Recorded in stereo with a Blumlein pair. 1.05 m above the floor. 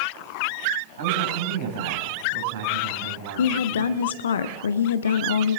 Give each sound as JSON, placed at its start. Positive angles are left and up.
{"t": 1.0, "sound": "a man speaking", "azimuth_deg": -60, "distance_m": 5.5}
{"t": 3.4, "sound": "a woman speaking", "azimuth_deg": 65, "distance_m": 0.6}